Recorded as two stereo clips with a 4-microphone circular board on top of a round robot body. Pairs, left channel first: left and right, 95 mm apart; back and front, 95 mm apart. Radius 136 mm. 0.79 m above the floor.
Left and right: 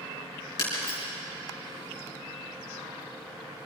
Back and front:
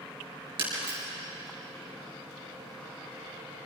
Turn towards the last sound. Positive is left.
turn(degrees=35)